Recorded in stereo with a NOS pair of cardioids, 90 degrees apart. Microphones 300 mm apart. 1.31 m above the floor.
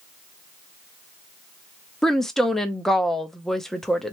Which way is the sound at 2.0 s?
Straight ahead.